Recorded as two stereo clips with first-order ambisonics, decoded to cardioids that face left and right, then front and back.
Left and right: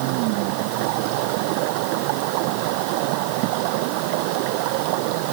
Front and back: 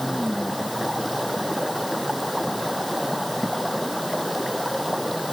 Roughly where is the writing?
I don't hear writing.